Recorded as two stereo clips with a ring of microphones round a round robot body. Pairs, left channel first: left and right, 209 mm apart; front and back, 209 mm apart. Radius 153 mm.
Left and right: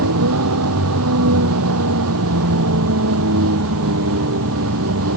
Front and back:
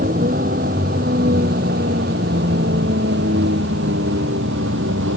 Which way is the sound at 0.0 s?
115° right.